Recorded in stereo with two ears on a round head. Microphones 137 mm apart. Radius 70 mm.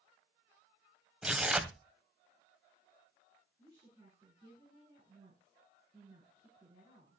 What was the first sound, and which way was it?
Tearing paper, 5° right (ahead or behind).